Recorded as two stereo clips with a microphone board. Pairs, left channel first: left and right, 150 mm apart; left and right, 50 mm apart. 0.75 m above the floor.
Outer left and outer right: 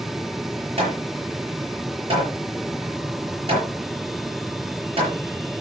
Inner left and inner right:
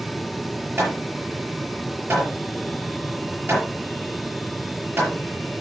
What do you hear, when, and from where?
0.8 s hammering: 40° right (ahead or behind), 6.5 m